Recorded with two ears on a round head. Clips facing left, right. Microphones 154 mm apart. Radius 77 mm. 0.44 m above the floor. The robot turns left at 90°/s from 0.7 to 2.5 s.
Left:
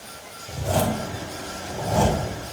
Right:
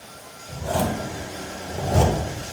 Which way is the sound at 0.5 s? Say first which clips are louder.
Left 1 dB; 35° left (ahead or behind).